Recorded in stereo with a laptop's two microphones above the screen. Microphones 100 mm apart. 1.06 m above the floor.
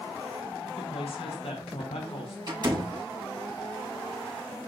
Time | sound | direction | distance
0.8 | a woman speaking | 80° left | 3.5 m
2.5 | a door slam | 45° right (ahead or behind) | 6.5 m